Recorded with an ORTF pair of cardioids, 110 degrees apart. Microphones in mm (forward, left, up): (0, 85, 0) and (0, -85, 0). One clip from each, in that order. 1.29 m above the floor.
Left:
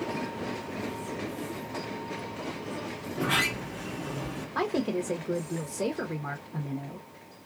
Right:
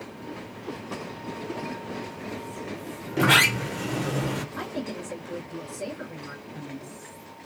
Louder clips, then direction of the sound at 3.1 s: Right 8 dB; 70° right.